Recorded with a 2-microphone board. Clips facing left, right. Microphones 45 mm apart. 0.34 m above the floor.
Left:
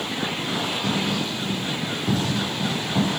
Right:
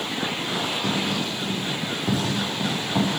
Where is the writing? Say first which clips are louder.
Left 1 dB; 10° right (ahead or behind), 10 m.